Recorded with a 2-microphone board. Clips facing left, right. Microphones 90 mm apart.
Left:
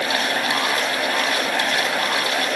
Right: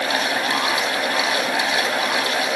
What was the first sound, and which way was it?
Only background noise.